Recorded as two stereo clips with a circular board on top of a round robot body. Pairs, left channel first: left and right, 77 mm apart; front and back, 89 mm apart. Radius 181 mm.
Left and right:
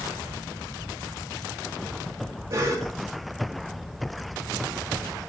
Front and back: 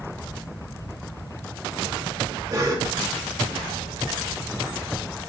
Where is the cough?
135° right, 2.5 m.